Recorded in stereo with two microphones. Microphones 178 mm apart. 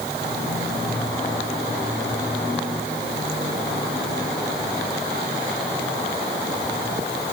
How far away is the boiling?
No boiling in this recording.